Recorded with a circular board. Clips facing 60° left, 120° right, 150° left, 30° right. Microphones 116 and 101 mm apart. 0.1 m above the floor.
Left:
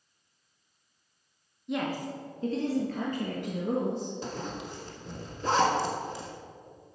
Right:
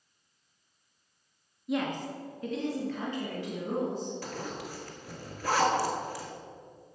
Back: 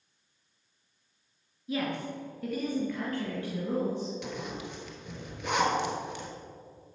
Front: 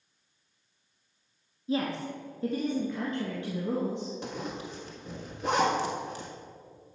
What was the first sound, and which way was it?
A woman speaking, 35° right.